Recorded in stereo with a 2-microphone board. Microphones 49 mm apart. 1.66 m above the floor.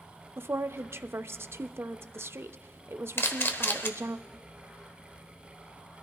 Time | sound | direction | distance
0.4 | a woman speaking | 55° right (ahead or behind) | 0.5 m
3.2 | a camera shutter | 50° left (ahead or behind) | 1.0 m